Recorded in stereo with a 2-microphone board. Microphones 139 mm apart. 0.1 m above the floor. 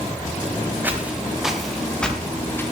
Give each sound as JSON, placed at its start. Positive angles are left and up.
{"t": 0.8, "sound": "footsteps", "side_deg": -15, "distance_m": 3.5}